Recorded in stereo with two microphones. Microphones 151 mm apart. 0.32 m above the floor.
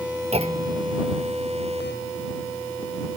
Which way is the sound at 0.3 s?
45° right (ahead or behind).